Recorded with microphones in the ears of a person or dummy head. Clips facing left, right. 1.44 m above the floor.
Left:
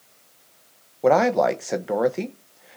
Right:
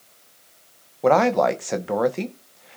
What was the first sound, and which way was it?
A man speaking, 5° left (ahead or behind).